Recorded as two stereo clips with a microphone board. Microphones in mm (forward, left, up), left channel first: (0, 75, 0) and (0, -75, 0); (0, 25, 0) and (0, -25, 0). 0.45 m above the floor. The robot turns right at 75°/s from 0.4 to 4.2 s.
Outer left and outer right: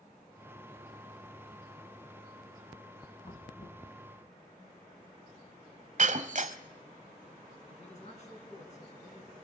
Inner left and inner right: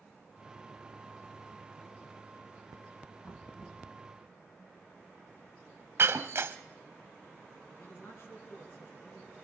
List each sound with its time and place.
3.2 s knocking: 40° left, 2.5 m; by 3.9 s 85° left, 2.5 m
6.0 s breaking glass: 55° right (ahead or behind), 0.8 m
7.7 s a man speaking: 50° left (ahead or behind), 4.5 m